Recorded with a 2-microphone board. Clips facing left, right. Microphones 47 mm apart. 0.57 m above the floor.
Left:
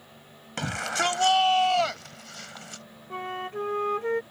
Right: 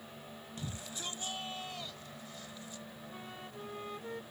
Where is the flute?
60° left (ahead or behind).